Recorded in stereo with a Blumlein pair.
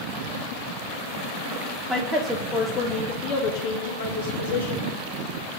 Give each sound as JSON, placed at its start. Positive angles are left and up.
{"t": 1.9, "sound": "a woman speaking", "azimuth_deg": 0, "distance_m": 1.6}